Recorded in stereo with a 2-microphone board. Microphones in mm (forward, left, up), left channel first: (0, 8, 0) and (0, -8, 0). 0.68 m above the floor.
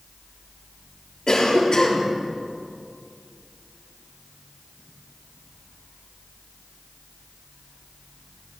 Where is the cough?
45° left (ahead or behind), 1.6 m.